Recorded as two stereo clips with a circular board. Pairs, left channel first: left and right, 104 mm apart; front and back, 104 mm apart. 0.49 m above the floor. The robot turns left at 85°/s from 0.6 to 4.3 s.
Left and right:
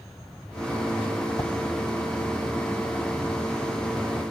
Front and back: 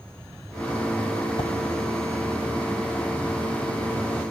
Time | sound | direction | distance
1.4 | a whoosh | 35° left | 0.7 m